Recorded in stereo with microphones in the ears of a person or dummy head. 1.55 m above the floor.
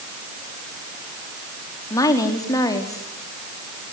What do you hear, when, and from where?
1.9 s a woman speaking: 25° left (ahead or behind), 4 m